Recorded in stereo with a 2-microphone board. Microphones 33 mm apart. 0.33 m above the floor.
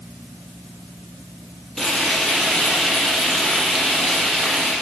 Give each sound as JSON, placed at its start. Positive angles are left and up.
{"t": 1.8, "sound": "frying", "side_deg": 15, "distance_m": 5.5}